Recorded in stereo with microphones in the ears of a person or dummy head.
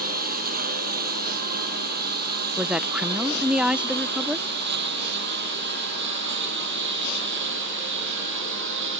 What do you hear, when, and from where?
0.0 s a lawn mower: 50° right (ahead or behind); by 9.0 s 70° right (ahead or behind)
2.6 s a woman speaking: 5° right (ahead or behind)